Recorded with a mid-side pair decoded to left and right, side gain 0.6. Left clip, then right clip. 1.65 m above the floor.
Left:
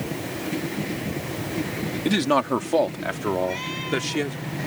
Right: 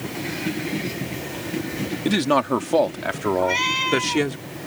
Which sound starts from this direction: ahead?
A man speaking, at 2.0 s.